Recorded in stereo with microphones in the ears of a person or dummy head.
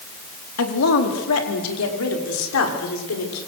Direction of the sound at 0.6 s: 85° left.